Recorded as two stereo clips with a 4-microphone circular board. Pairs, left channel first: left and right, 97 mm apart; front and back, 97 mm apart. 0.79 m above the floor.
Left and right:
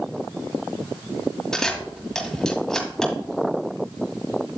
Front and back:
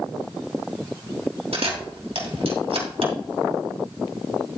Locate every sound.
1.5 s a camera shutter: 175° left, 2.5 m